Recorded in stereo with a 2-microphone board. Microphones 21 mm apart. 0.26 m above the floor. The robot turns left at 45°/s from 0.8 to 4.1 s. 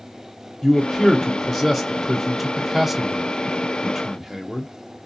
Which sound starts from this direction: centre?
A man speaking, at 0.6 s.